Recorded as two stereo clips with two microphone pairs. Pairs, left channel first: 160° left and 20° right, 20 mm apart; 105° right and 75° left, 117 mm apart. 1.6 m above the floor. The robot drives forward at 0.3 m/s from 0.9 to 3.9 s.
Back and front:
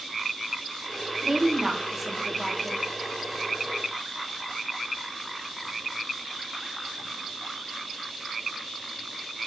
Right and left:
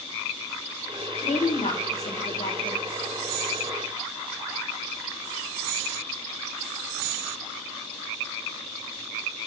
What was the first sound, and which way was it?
A woman speaking, 85° right.